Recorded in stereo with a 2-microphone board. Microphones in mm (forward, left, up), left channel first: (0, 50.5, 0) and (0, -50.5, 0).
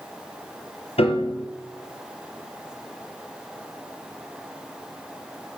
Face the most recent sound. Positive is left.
turn(degrees=85)